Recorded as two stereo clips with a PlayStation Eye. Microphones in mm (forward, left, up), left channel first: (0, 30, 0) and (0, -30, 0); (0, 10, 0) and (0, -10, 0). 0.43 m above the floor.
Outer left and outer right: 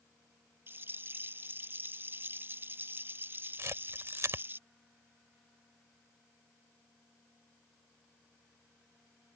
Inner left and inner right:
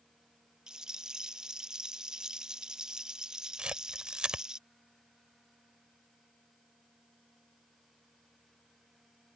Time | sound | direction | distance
0.7 | a rattle | 35° right (ahead or behind) | ?
3.6 | a camera shutter | 55° right (ahead or behind) | ?